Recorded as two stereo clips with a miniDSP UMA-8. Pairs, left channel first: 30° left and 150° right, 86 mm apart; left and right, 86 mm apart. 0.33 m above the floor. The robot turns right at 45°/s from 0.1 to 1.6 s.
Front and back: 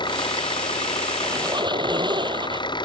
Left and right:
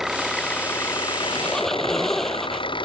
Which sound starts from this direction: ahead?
An engine running, at 0.0 s.